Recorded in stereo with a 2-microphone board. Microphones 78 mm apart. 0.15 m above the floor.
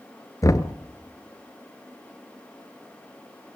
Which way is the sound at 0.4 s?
45° left (ahead or behind).